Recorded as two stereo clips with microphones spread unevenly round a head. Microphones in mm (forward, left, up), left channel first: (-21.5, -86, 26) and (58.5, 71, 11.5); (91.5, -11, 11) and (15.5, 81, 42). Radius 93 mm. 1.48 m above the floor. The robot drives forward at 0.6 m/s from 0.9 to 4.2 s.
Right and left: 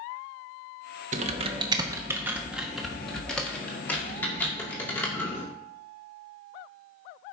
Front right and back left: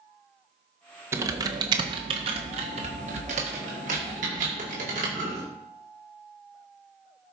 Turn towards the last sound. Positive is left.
turn(degrees=165)